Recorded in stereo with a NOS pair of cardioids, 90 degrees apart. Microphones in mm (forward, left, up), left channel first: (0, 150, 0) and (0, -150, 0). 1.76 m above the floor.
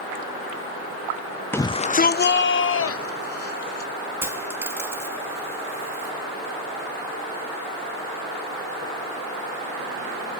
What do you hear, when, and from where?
1.5 s a shout: 5° left, 0.6 m; by 3.9 s 50° left, 2.5 m
4.2 s a dropped coin: 5° right, 5 m